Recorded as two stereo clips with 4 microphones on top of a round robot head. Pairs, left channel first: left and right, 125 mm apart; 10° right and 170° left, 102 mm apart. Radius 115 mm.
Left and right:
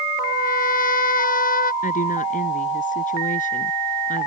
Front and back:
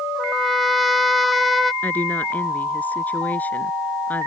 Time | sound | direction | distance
0.1 | a trumpet | 80° left | ?
1.8 | a woman speaking | 65° left | ?